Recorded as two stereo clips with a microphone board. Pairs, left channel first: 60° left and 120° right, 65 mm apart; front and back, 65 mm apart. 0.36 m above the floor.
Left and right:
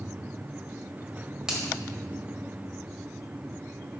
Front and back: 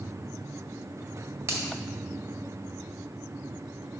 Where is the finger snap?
165° left, 1.8 m.